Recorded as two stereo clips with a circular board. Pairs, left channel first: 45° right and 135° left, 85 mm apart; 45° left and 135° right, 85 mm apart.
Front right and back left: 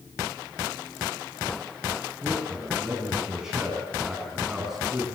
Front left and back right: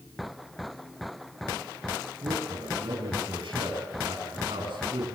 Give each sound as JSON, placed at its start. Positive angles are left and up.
{"t": 2.2, "sound": "a man speaking", "azimuth_deg": -140, "distance_m": 7.0}